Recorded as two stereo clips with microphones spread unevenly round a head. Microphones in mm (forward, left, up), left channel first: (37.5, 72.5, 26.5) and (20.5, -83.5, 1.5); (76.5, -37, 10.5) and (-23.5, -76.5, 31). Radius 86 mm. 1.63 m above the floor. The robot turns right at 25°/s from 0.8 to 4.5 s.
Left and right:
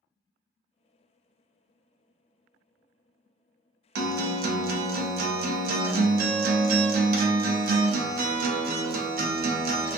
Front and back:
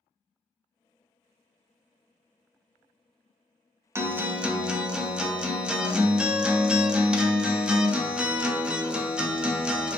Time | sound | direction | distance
4.0 | a guitar | 85° right | 0.5 m